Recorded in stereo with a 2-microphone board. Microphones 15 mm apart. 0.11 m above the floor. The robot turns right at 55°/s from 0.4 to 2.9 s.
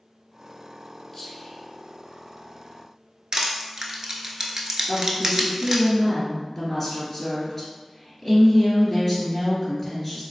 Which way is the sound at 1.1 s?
25° left (ahead or behind).